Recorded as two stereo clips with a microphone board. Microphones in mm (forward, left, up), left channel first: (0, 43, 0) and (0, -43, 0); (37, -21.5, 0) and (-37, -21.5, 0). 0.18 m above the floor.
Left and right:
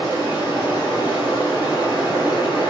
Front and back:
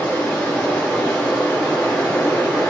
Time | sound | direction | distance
0.0 | running water | 65° left | 2 m